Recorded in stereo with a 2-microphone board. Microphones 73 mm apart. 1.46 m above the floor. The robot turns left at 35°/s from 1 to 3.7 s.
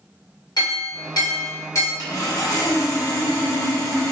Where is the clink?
70° left, 1.6 m; by 1.9 s 40° left, 1.6 m.